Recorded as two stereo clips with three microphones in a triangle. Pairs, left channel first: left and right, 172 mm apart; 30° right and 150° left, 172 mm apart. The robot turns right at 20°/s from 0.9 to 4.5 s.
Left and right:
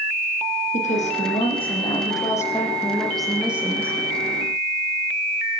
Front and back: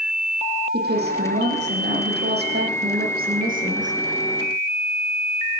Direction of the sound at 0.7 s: 135° left.